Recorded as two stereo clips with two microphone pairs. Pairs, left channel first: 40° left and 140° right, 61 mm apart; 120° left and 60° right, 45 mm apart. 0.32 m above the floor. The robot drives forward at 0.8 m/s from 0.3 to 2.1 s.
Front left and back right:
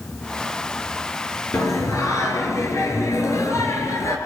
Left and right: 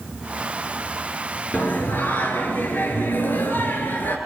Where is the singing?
70° left, 3 m; by 4.2 s 80° left, 3 m.